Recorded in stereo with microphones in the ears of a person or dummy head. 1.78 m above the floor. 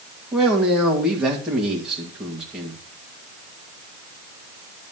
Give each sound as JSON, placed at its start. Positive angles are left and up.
{"t": 0.3, "sound": "a man speaking", "side_deg": -5, "distance_m": 1.9}